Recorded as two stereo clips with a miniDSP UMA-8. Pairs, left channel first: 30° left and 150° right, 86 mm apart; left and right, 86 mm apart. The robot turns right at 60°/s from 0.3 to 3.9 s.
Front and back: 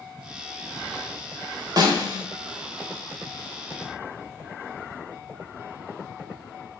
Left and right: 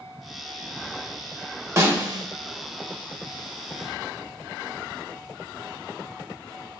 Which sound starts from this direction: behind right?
A snare drum, at 1.8 s.